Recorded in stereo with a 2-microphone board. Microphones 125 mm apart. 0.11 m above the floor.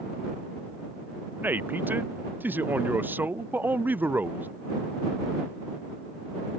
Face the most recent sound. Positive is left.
turn(degrees=-15)  # may be behind; listen again after turning